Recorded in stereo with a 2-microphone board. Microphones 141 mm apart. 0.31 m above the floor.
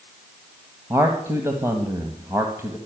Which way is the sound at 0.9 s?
20° right (ahead or behind).